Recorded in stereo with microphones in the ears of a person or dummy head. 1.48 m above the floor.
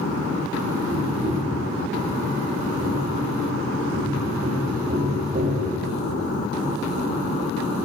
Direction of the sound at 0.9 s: 50° right (ahead or behind).